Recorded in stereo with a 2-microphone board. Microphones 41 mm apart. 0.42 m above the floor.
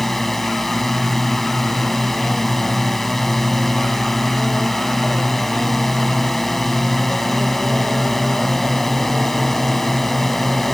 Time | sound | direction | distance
0.0 | a drone | 5° left (ahead or behind) | ?